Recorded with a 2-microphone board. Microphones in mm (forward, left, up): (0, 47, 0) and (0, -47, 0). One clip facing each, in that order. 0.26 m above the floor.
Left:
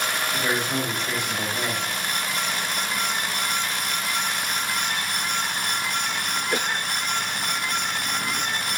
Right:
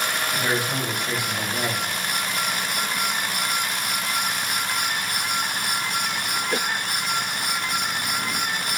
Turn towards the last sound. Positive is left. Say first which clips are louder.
# even
turn(degrees=-10)  # may be behind; listen again after turning